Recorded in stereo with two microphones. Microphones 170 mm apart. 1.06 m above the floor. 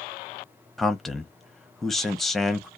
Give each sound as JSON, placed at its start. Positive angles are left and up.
{"t": 0.8, "sound": "a man speaking", "side_deg": 0, "distance_m": 0.5}